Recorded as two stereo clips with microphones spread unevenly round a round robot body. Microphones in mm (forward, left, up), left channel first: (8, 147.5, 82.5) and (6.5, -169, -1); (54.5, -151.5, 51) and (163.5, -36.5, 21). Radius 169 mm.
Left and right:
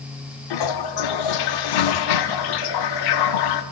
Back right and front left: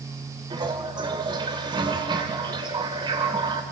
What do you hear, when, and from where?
0.5 s a toilet flushing: 110° left, 0.7 m